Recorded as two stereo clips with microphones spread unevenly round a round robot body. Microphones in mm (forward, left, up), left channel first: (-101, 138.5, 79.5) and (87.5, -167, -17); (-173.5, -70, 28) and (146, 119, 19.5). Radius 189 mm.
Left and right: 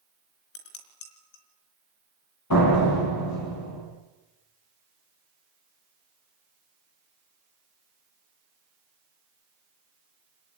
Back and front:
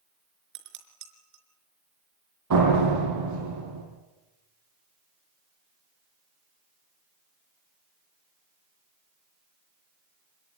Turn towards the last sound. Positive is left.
turn(degrees=75)